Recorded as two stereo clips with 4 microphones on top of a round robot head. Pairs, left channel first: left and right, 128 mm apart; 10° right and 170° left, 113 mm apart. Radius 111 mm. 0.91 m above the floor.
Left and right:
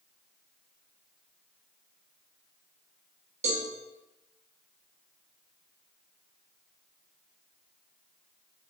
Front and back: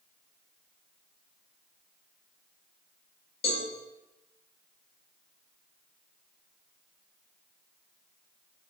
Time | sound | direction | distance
3.4 | a cowbell | 50° right | 1.3 m